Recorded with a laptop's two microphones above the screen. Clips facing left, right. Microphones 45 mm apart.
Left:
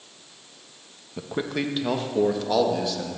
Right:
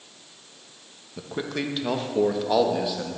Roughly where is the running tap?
I don't hear a running tap.